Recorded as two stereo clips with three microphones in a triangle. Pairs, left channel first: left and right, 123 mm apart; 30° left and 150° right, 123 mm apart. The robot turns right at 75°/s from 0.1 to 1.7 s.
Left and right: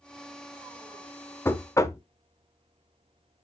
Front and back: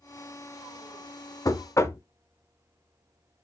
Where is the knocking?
40° left, 0.6 m; by 2.0 s 60° left, 0.6 m.